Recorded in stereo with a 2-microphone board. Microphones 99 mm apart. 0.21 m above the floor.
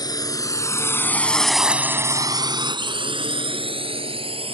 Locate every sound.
0.0 s a drone: 45° left (ahead or behind); by 4.5 s 70° right (ahead or behind)